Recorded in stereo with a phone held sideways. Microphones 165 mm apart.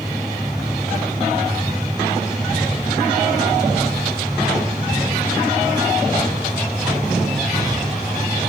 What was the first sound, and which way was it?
A machine running, centre (ahead or behind).